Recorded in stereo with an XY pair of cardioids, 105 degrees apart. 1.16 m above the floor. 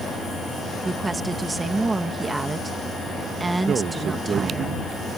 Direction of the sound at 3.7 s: 55° right.